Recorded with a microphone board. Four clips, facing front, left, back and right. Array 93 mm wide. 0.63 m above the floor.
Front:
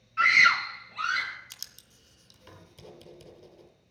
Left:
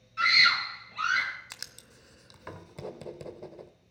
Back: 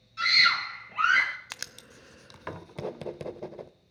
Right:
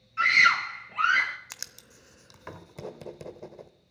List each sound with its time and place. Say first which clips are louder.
0.2 s a scream: right 3 dB, front 4 dB; 15° right, 1.2 m; by 1.4 s 150° right, 1.6 m
1.5 s writing: right 1 dB, back 12 dB; 175° right, 0.6 m